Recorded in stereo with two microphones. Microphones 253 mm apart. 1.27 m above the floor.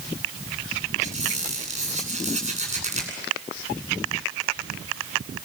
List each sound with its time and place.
1.0 s a squeak: 25° right (ahead or behind), 10 m